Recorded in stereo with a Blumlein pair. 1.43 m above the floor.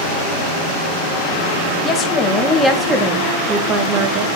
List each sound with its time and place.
1.8 s a woman speaking: 25° left, 1.8 m; by 4.4 s 50° right, 1.6 m